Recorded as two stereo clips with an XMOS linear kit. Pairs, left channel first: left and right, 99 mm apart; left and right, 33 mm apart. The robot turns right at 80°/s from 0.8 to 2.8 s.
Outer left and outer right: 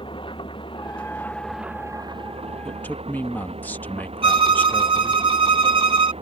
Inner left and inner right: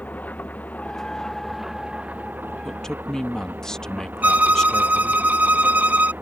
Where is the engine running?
125° left; by 6.2 s 75° right.